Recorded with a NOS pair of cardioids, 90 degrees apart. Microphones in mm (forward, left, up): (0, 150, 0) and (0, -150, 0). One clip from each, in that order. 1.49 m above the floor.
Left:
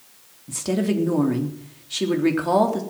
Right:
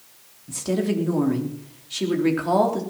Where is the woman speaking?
15° left, 3.5 m.